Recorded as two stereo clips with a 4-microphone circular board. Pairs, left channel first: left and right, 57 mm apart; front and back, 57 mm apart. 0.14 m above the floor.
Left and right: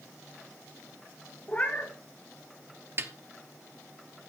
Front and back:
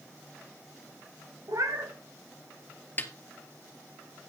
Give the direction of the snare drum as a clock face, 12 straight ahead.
2 o'clock.